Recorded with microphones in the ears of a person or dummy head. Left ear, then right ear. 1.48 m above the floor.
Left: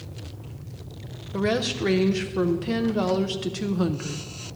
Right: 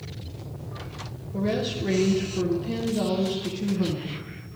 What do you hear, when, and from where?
1.3 s a woman speaking: 45° left (ahead or behind), 0.5 m